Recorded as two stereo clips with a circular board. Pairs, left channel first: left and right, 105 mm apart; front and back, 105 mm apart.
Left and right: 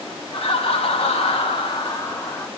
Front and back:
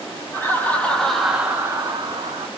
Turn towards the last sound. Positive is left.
turn(degrees=155)